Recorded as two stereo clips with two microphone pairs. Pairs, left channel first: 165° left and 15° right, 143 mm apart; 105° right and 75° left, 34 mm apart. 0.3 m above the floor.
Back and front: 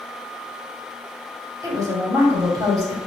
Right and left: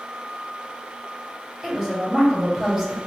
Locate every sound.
1.6 s a woman speaking: 20° left, 1.4 m